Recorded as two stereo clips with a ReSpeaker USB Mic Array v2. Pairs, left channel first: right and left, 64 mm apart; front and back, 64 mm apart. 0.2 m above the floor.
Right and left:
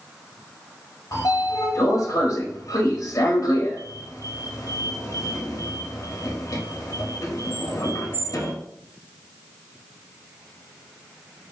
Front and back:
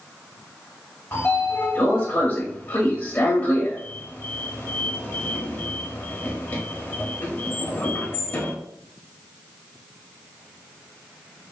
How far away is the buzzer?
No buzzer in this recording.